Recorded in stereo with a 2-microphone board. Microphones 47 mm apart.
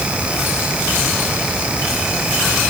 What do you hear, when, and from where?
Only background noise.